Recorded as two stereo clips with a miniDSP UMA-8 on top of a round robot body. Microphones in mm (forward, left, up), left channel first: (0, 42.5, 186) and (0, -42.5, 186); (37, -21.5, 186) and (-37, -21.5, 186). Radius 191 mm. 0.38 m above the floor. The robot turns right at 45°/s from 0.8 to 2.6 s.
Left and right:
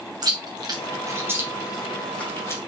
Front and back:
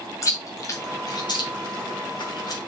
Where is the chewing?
50° right, 2.5 m; by 2.6 s 35° left, 2.5 m.